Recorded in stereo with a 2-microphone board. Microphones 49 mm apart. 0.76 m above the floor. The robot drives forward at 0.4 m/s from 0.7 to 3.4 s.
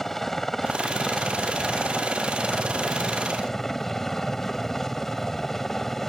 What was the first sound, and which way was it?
A helicopter, 5° left (ahead or behind).